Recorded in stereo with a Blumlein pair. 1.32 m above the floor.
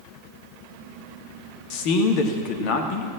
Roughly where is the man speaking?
Ahead left.